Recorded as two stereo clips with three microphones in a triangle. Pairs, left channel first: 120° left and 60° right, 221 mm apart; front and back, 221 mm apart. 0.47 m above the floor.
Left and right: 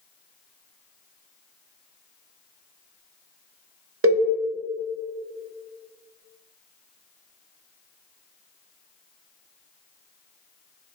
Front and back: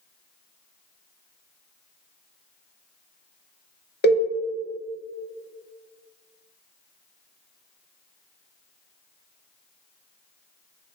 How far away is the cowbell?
About 0.7 m.